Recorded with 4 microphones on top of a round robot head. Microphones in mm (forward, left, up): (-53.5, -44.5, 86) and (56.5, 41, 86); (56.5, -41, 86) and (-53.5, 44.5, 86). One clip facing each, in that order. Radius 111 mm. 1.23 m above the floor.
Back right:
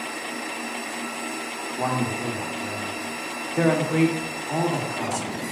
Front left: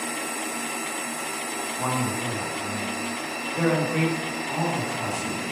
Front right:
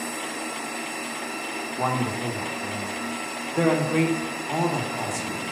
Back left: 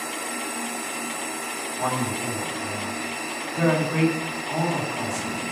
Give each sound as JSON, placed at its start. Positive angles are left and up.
{"t": 1.8, "sound": "a man speaking", "azimuth_deg": -95, "distance_m": 1.6}